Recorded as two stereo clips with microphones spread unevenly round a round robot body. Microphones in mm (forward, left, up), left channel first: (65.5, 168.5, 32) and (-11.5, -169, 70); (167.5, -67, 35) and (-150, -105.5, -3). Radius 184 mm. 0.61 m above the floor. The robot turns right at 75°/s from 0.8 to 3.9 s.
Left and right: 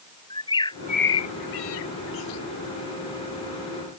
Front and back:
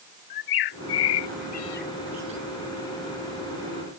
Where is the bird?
Straight ahead; by 2.4 s 120° left.